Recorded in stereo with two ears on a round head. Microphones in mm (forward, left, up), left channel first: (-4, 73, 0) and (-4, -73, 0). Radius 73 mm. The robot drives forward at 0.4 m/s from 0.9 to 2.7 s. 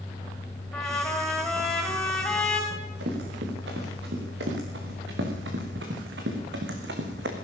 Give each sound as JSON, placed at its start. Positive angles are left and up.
{"t": 0.7, "sound": "a trumpet", "side_deg": 5, "distance_m": 5.0}
{"t": 2.7, "sound": "running footsteps", "side_deg": -75, "distance_m": 8.5}